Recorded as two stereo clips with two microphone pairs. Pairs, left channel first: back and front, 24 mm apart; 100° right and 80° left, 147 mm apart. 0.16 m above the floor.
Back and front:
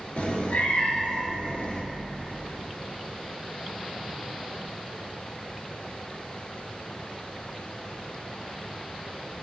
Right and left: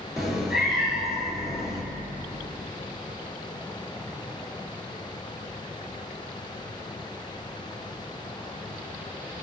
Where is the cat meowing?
170° left, 1.1 m.